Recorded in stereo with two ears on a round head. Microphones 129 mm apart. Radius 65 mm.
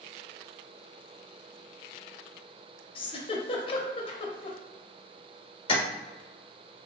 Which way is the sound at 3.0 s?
40° left (ahead or behind).